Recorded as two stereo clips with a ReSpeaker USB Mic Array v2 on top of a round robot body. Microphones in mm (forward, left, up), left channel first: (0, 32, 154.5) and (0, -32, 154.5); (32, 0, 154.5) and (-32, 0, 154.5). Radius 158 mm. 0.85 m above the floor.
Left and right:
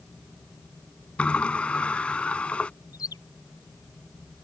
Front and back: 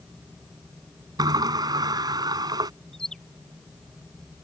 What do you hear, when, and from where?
1.2 s a sliding door: 165° left
2.9 s a bird: 80° left